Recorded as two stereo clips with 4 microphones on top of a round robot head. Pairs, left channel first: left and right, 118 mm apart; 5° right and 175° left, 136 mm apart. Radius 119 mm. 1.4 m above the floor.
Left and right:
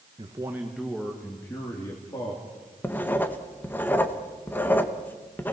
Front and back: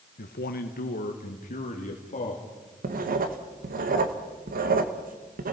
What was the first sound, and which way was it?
A man speaking, 30° right.